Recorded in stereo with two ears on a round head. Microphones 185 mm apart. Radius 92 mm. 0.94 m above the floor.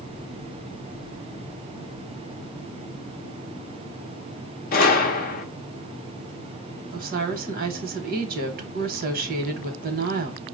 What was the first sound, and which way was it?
A gunshot, 45° left (ahead or behind).